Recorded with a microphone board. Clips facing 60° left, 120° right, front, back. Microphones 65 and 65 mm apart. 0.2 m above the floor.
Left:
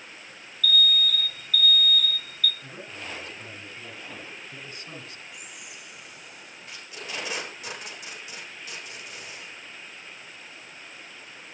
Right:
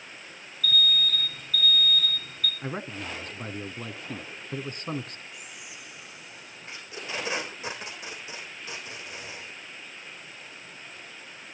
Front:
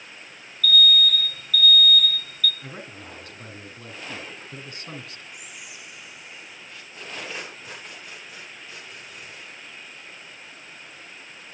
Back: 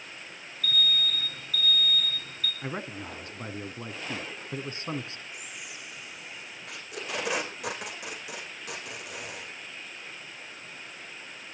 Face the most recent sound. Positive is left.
turn(degrees=175)